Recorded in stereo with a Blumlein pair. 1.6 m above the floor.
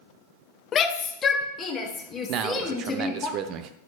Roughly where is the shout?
Ahead left.